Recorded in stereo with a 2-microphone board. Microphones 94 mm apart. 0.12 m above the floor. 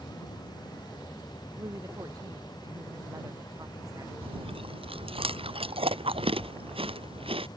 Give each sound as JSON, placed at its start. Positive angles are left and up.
{"t": 1.6, "sound": "a woman speaking", "side_deg": -35}
{"t": 4.2, "sound": "chewing", "side_deg": -75}